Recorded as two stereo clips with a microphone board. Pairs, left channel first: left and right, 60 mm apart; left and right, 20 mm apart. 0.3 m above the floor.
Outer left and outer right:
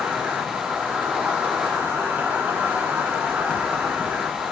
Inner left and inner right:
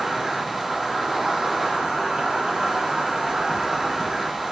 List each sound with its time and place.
0.0 s an insect: 40° right (ahead or behind), 1.4 m